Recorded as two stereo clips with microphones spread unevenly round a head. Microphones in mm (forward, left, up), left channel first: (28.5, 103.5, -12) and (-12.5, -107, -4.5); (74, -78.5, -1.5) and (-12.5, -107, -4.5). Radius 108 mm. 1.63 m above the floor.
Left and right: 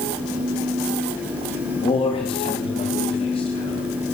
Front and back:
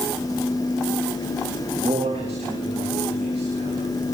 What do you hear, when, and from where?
1.8 s a man speaking: 145° left, 4.5 m